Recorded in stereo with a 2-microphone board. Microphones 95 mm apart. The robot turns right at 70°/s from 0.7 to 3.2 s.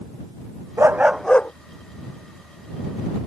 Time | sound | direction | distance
0.8 | a dog barking | 30° right | ?